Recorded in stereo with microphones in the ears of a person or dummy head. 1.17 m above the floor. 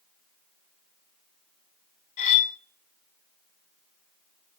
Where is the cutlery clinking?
35° left (ahead or behind), 1.2 m.